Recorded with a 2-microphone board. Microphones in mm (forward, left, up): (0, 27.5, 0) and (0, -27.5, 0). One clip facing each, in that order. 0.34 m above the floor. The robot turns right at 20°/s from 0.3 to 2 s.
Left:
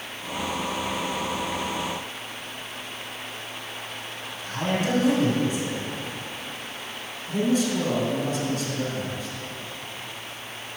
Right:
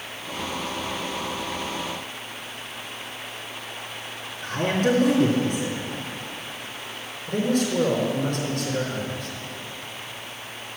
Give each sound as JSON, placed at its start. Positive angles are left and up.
{"t": 4.4, "sound": "a man speaking", "side_deg": -65, "distance_m": 3.5}
{"t": 7.3, "sound": "a man speaking", "side_deg": -65, "distance_m": 4.0}